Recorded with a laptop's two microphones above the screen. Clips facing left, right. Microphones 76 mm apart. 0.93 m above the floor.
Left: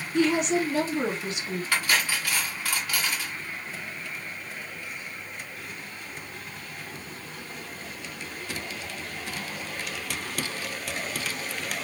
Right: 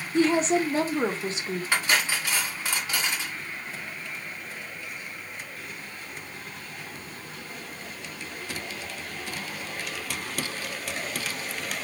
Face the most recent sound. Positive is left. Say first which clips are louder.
# right 1 dB
turn(degrees=-20)  # may be behind; listen again after turning